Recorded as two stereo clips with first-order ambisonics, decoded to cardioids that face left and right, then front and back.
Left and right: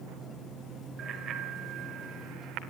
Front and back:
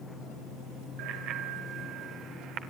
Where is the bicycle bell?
145° right, 2.5 m; by 2.6 s 130° right, 1.9 m.